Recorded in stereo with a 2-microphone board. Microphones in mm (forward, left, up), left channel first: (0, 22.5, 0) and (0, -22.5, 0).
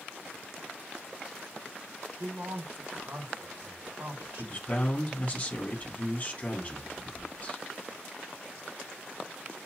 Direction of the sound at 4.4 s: 35° left (ahead or behind).